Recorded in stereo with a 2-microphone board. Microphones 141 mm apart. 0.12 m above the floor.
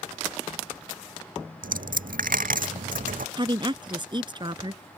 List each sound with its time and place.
1.6 s a dropped coin: 85° right
3.4 s a woman speaking: 35° right (ahead or behind)